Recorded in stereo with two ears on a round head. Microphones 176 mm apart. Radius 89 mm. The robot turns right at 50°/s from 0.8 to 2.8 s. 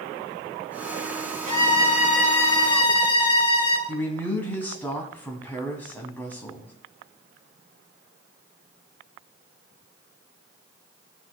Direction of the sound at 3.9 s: 10° left (ahead or behind).